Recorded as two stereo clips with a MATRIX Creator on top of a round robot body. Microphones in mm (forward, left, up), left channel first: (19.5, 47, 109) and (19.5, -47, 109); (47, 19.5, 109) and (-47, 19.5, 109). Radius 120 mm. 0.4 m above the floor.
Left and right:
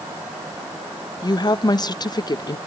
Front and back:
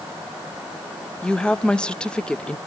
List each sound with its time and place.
1.2 s a woman speaking: 80° left, 1.0 m